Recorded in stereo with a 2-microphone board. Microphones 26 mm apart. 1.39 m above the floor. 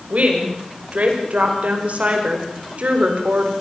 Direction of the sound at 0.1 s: 70° right (ahead or behind).